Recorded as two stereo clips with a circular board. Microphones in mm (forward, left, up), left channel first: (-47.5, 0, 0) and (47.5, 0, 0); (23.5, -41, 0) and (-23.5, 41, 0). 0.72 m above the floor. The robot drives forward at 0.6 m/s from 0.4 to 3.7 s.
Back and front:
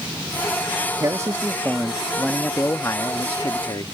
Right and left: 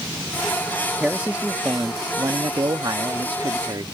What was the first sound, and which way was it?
A man speaking, 40° left.